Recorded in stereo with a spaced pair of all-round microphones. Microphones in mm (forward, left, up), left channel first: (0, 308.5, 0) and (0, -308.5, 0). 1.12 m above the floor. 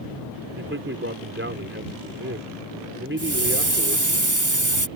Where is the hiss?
30° right (ahead or behind).